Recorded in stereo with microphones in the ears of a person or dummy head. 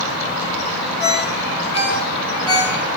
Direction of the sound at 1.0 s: 25° left (ahead or behind).